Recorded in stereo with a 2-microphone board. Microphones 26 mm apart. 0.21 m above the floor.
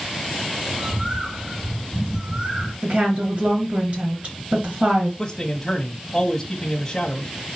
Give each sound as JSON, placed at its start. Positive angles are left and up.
{"t": 0.7, "sound": "a bird", "side_deg": -25, "distance_m": 1.4}
{"t": 2.8, "sound": "a woman speaking", "side_deg": -50, "distance_m": 3.0}
{"t": 5.2, "sound": "a man speaking", "side_deg": 15, "distance_m": 1.0}